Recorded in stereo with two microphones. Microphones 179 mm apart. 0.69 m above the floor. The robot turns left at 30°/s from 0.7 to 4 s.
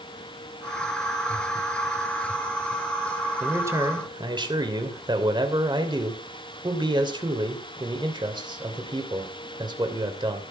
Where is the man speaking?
10° right (ahead or behind), 2.5 m; by 10.4 s 25° right (ahead or behind), 2.5 m.